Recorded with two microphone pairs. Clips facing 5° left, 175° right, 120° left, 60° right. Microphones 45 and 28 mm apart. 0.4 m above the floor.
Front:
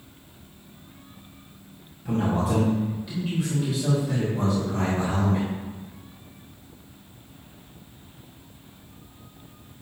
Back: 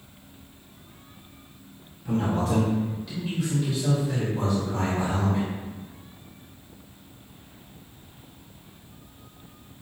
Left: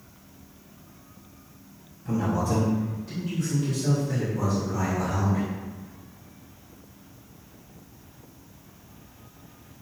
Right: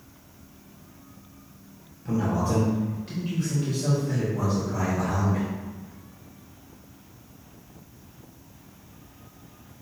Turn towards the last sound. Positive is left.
turn(degrees=-75)